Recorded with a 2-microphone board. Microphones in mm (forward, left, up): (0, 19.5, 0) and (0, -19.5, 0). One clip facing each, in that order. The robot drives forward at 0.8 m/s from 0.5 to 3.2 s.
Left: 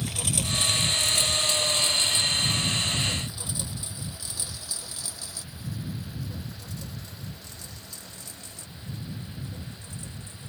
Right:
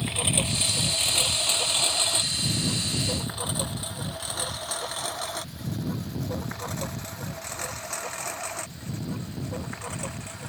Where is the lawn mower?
30° right (ahead or behind); by 10.5 s 85° right.